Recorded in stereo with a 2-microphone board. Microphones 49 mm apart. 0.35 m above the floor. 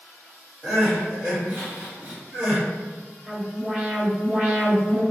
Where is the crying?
30° right (ahead or behind), 1.6 m.